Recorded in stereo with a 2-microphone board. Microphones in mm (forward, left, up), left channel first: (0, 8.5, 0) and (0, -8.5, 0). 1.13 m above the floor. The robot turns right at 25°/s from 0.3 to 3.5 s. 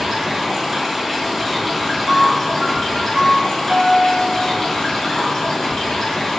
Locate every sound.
0.0 s running water: 45° right, 1.2 m; by 6.4 s 35° left, 1.2 m
2.1 s a piano: 90° right, 0.7 m; by 4.6 s 50° right, 0.7 m